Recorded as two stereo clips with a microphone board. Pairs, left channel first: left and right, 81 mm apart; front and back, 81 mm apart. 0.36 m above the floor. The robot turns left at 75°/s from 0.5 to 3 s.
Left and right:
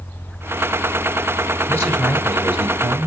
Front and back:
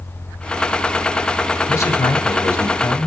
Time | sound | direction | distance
1.7 | a man speaking | 40° left | 1.2 m